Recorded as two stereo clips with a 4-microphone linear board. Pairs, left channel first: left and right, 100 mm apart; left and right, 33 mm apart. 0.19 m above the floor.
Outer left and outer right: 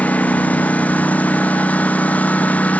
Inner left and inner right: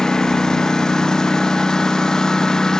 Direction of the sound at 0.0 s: 15° left (ahead or behind).